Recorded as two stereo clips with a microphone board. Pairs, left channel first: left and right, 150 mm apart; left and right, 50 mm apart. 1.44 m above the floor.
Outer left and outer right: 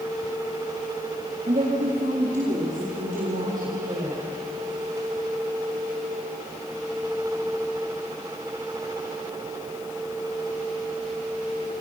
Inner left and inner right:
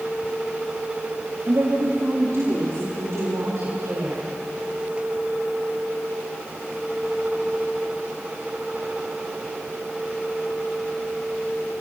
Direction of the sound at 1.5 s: 65° right (ahead or behind).